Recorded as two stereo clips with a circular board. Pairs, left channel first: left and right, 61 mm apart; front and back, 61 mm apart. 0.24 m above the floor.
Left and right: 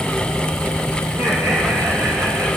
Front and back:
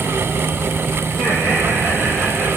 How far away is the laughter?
About 6 m.